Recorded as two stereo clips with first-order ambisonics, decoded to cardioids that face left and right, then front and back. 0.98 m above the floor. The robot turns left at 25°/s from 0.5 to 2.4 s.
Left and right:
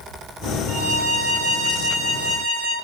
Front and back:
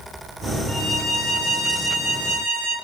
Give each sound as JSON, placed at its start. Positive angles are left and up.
{"t": 0.7, "sound": "a violin", "azimuth_deg": -105, "distance_m": 1.5}